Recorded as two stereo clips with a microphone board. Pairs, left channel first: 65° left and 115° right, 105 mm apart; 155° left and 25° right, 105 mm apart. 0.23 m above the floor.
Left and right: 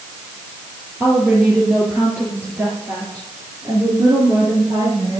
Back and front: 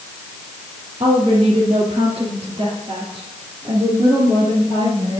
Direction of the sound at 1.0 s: 30° right.